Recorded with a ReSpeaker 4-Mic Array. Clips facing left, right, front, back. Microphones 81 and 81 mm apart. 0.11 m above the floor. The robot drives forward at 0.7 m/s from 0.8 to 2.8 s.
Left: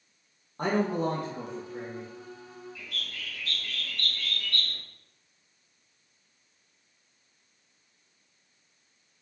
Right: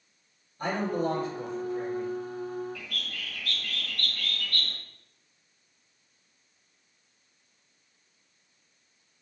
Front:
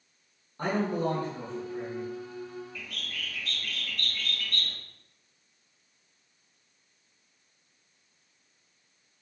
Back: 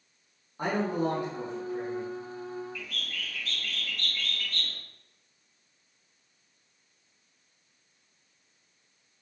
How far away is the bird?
About 1.6 m.